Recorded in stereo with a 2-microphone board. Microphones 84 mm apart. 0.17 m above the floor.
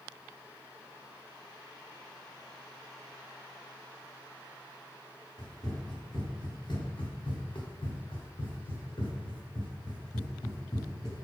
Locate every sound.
5.4 s running footsteps: 35° left (ahead or behind), 1.7 m; by 11.2 s 50° left (ahead or behind), 2.5 m